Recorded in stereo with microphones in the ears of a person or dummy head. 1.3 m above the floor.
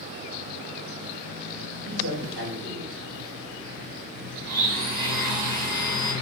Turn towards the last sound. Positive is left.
turn(degrees=-55)  # may be behind; listen again after turning